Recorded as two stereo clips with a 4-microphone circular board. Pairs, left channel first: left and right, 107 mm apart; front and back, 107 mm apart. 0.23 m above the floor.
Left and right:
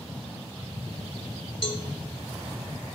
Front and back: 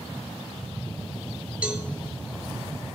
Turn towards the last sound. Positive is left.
turn(degrees=105)